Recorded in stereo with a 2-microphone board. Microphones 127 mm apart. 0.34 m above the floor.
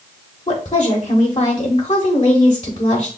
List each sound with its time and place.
0.5 s a woman speaking: 40° left (ahead or behind), 1.3 m